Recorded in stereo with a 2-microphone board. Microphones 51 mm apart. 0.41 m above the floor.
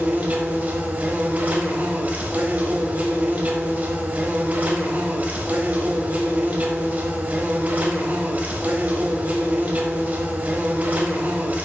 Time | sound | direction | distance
0.0 | an insect | 30° right (ahead or behind) | 1.2 m